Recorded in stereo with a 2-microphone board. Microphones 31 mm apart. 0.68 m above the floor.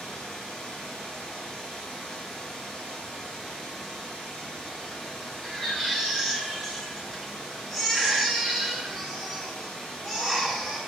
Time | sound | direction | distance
0.0 | running water | 35° left (ahead or behind) | 3.5 m
5.4 | a baby crying | 15° left (ahead or behind) | 3 m